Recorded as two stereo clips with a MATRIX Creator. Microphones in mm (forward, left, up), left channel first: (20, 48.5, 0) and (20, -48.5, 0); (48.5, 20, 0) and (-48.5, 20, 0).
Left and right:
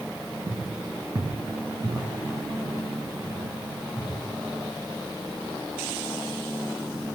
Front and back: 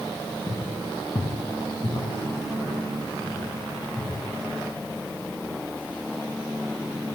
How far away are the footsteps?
About 1.1 m.